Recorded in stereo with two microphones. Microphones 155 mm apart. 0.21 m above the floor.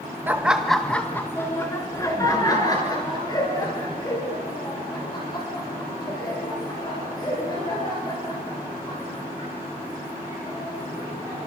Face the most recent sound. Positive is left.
turn(degrees=30)  # may be behind; listen again after turning